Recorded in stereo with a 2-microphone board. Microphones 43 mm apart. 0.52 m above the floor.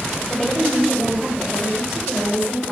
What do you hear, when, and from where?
0.3 s a woman speaking: 10° left (ahead or behind), 2.5 m; by 2.7 s 25° right (ahead or behind), 2.5 m